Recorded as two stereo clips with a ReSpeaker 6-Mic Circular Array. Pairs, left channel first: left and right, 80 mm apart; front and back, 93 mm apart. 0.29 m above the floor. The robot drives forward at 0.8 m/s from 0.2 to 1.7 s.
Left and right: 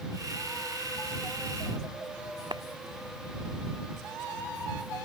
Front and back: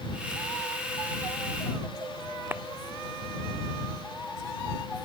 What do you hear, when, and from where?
2.5 s a clap: 115° right